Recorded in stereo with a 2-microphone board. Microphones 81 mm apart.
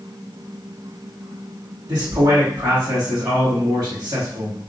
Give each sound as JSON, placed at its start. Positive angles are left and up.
{"t": 1.9, "sound": "a man speaking", "side_deg": -60, "distance_m": 1.6}